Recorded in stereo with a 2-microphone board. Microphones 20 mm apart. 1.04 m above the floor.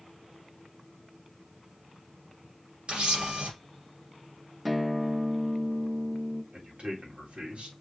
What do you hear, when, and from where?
2.9 s a camera shutter: 70° right (ahead or behind), 2.5 m
4.7 s a guitar: centre (ahead or behind), 0.6 m
6.5 s a man speaking: 70° right (ahead or behind), 1.9 m